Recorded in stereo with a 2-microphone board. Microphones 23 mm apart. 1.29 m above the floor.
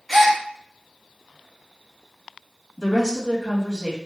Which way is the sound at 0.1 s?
Centre (ahead or behind).